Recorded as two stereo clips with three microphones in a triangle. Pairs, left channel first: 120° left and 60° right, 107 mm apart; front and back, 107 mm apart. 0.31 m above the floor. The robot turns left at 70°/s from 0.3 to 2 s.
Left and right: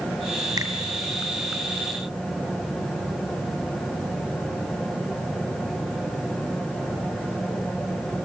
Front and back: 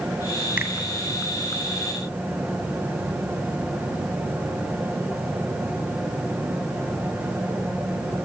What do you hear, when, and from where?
0.6 s a finger snap: 110° right, 1.8 m; by 0.7 s 120° right, 1.8 m